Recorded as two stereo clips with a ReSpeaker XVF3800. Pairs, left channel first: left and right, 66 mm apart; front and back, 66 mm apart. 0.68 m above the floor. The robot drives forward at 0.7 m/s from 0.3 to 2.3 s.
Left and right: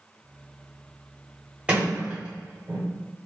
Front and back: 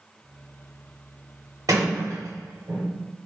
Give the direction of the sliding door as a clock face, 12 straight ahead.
5 o'clock.